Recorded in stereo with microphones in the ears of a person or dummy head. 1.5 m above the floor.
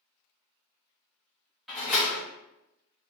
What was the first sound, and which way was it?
A door slam, centre (ahead or behind).